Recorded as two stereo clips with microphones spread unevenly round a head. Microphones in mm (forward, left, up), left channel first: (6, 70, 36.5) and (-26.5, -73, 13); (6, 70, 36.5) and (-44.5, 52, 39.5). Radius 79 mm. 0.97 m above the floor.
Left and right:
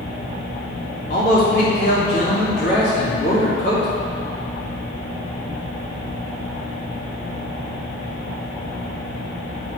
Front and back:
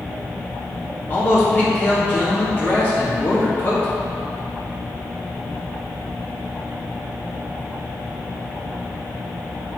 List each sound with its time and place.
1.1 s a man speaking: 70° left, 2 m